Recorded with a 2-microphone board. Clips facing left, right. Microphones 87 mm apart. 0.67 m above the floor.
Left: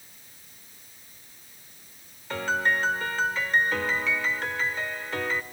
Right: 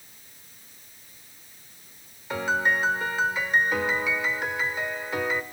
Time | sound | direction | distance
2.3 | a piano | 10° right (ahead or behind) | 1.3 m